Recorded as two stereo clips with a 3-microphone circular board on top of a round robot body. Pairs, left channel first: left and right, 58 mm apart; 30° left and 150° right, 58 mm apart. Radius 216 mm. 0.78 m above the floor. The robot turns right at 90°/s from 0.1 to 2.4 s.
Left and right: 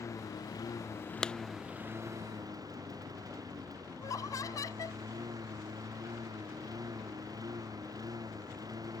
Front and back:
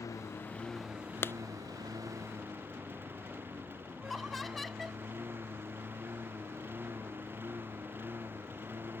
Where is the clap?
20° left; by 1.3 s 30° left.